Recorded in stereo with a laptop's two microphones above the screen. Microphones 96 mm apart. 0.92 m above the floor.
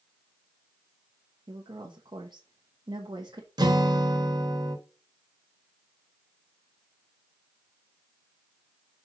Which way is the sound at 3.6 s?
45° right (ahead or behind).